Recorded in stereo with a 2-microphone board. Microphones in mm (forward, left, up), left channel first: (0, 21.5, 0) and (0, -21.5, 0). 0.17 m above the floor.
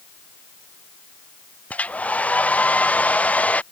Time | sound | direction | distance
1.7 | a hair dryer | 35° left (ahead or behind) | ?